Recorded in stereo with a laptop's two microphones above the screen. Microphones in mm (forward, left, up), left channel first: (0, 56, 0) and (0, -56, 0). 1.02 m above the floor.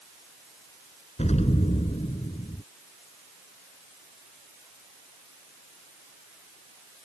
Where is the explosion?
70° left (ahead or behind).